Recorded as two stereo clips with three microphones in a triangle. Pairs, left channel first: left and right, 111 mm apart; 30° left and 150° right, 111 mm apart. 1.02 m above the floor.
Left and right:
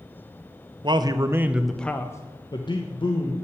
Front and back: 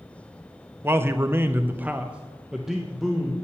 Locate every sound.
0.8 s a man speaking: 90° right, 0.6 m; by 3.3 s 120° left, 1.1 m